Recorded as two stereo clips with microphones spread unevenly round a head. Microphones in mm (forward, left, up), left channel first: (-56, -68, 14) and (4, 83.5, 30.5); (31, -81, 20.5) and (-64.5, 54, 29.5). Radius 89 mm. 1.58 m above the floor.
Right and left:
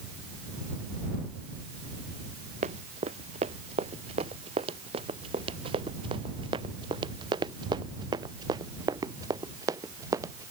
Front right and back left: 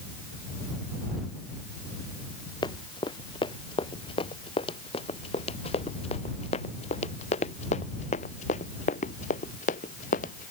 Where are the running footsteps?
10° left; by 10.5 s 5° right.